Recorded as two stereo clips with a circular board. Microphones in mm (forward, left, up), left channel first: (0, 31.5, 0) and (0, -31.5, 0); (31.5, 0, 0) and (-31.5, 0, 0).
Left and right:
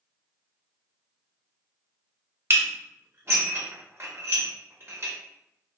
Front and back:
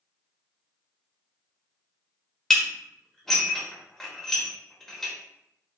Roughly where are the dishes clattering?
Right.